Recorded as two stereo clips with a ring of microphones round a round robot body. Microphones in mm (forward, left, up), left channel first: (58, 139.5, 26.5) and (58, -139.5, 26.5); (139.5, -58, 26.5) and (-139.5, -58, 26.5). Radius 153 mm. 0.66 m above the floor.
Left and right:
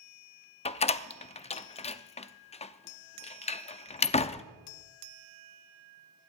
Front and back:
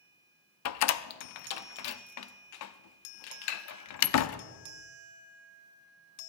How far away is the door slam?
About 0.7 m.